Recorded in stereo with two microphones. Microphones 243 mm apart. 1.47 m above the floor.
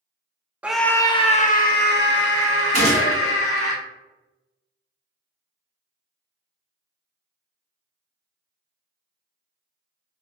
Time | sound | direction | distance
0.6 | a scream | 5° right (ahead or behind) | 0.6 m
2.7 | a gunshot | 30° left (ahead or behind) | 1.7 m